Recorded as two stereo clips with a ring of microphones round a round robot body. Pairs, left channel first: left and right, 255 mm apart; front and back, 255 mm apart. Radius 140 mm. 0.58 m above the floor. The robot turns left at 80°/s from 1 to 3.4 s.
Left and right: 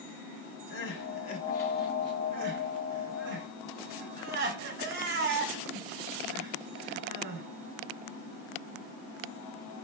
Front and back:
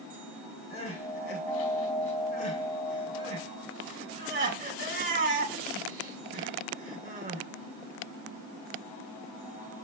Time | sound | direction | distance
0.7 | crying | 60° left | 2 m